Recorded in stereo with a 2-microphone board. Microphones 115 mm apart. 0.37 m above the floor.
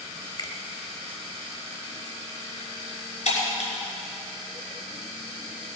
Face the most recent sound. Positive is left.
turn(degrees=80)